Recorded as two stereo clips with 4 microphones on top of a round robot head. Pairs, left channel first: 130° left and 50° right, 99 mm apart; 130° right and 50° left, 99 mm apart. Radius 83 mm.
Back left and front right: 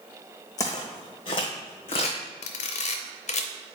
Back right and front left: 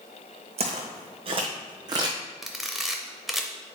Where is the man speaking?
No man speaking in this recording.